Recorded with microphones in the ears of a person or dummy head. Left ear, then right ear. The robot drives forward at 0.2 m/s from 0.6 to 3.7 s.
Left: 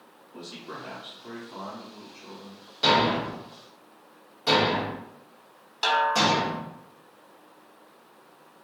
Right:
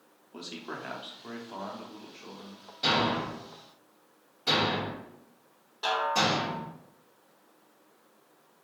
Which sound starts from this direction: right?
A man speaking, at 0.3 s.